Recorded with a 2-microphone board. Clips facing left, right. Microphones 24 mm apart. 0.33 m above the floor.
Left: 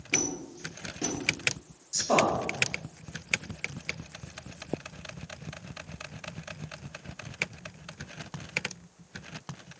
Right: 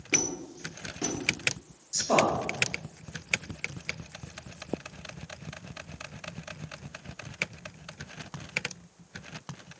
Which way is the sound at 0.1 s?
45° right (ahead or behind).